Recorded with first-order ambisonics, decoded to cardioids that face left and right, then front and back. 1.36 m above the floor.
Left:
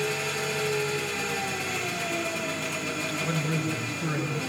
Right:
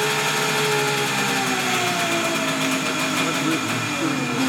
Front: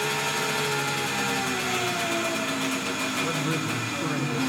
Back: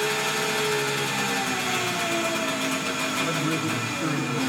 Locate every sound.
0.0 s an engine running: 90° right, 1.2 m
3.2 s a man speaking: 100° right, 3.5 m